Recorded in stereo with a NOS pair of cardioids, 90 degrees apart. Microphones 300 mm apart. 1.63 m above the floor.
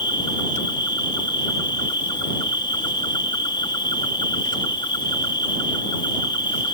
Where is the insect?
15° left.